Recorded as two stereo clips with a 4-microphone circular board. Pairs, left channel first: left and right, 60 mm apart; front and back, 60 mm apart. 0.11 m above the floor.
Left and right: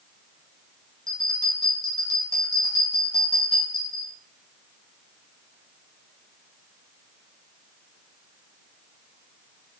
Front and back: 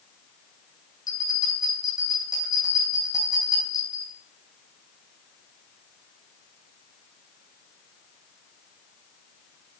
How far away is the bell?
About 2.5 m.